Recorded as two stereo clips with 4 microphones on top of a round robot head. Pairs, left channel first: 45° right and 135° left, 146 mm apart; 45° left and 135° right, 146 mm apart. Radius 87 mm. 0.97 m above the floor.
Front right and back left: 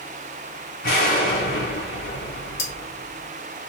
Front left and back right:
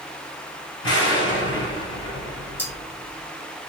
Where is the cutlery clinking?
35° right, 1.2 m.